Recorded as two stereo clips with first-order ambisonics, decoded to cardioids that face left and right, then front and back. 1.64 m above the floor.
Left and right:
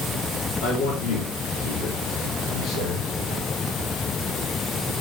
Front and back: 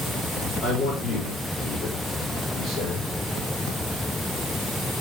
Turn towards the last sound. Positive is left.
turn(degrees=55)